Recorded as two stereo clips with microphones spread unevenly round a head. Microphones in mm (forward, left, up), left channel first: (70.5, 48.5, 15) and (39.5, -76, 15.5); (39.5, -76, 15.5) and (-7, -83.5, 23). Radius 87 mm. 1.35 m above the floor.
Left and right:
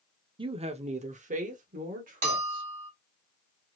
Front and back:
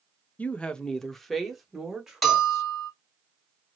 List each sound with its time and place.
0.4 s a woman speaking: 50° right, 0.8 m; by 2.6 s 95° right, 2 m
2.2 s a bell: 80° right, 2.0 m